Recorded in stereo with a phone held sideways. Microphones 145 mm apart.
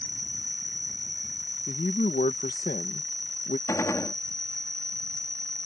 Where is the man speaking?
70° left (ahead or behind).